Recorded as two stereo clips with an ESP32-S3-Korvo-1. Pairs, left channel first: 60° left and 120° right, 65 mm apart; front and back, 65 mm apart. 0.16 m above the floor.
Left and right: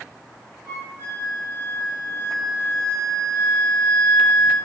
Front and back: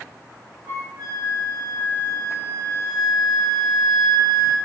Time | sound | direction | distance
0.7 | a flute | 170° right | 2.0 m